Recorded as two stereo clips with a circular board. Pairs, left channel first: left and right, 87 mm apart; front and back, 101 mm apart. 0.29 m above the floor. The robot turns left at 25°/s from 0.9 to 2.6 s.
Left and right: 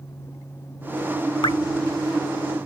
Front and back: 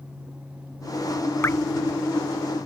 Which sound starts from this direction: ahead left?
Dripping, at 1.4 s.